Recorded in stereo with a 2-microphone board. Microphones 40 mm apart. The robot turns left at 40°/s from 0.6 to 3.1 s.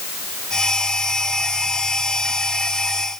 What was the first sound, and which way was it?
Only background noise.